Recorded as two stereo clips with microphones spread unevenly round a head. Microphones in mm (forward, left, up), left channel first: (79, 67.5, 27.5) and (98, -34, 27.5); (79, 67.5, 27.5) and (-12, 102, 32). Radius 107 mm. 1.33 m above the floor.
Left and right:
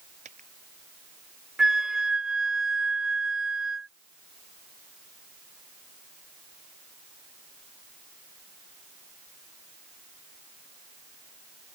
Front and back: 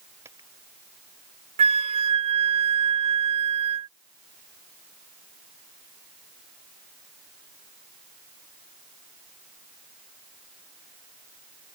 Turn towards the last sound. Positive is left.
turn(degrees=-165)